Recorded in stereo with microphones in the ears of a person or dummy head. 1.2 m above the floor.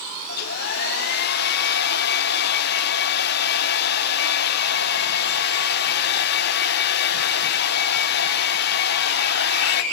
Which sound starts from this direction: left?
A hair dryer, at 0.3 s.